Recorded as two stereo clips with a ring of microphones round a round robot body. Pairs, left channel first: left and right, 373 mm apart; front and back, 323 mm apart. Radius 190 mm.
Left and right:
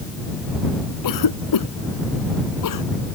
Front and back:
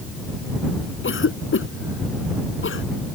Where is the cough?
50° left.